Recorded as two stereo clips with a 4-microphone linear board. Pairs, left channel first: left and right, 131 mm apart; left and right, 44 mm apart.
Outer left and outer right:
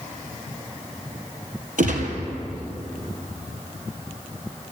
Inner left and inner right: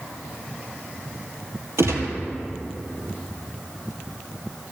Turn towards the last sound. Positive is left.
turn(degrees=-80)